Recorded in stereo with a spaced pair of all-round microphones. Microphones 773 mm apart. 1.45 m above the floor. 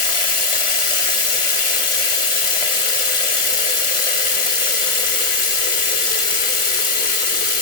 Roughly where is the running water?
Left.